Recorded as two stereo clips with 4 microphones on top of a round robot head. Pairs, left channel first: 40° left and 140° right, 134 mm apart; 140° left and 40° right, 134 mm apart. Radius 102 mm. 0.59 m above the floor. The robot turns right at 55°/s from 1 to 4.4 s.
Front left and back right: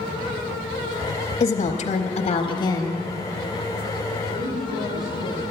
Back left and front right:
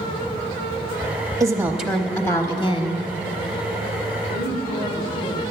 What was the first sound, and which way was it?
A woman speaking, 20° left.